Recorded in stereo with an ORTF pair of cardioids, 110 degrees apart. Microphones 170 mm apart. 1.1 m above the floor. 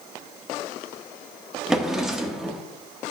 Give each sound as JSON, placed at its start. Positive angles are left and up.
{"t": 1.7, "sound": "a drawer", "azimuth_deg": -5, "distance_m": 1.1}